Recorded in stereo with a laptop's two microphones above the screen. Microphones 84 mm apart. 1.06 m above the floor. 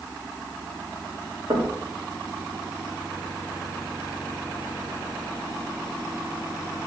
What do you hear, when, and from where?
1.5 s knocking: 60° right (ahead or behind), 1.6 m